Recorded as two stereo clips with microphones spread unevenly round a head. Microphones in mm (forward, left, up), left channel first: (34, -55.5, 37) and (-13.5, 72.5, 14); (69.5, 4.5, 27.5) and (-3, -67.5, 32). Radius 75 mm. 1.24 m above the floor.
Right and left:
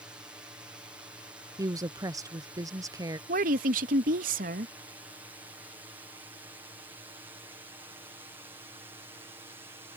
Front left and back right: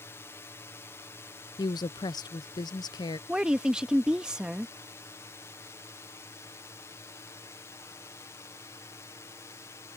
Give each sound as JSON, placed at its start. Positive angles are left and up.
{"t": 0.0, "sound": "a drone", "azimuth_deg": 65}
{"t": 1.6, "sound": "a woman speaking", "azimuth_deg": 70}
{"t": 3.3, "sound": "a woman speaking", "azimuth_deg": 140}